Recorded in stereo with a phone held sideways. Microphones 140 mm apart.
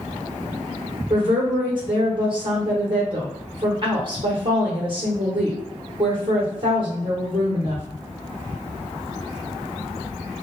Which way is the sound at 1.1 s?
35° right (ahead or behind).